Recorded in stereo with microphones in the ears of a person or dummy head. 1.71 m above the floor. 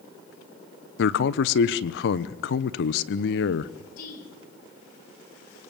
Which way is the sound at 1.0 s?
70° left (ahead or behind).